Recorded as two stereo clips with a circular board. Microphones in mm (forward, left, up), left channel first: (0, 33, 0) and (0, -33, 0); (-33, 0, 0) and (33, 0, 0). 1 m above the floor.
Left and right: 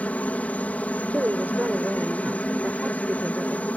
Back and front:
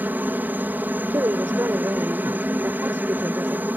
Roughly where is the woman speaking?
Ahead right.